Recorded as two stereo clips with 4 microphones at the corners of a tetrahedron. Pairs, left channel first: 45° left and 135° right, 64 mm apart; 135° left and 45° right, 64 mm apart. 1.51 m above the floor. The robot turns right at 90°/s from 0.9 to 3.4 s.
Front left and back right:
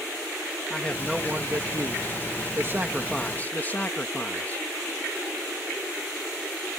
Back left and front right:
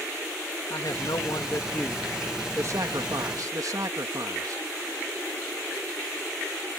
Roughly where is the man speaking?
Behind left.